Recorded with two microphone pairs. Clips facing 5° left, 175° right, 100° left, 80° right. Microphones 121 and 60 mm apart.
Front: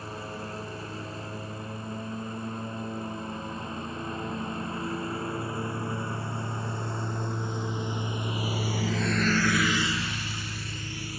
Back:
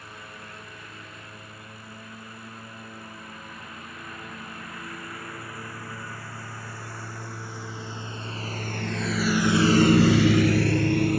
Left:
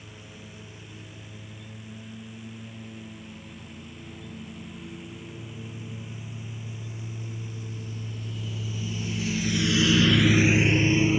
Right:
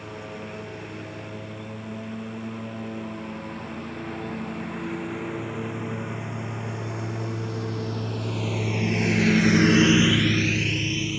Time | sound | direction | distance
0.0 | a lawn mower | 55° right | ?